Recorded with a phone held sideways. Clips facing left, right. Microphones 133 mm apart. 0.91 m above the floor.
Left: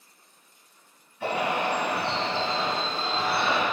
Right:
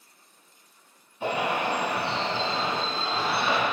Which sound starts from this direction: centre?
A bird, at 1.2 s.